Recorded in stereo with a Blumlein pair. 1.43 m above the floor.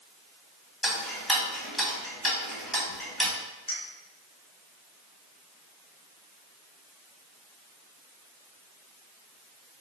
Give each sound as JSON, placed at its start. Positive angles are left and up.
{"t": 0.8, "sound": "ticking", "azimuth_deg": 15, "distance_m": 1.4}
{"t": 3.7, "sound": "a clink", "azimuth_deg": 65, "distance_m": 1.6}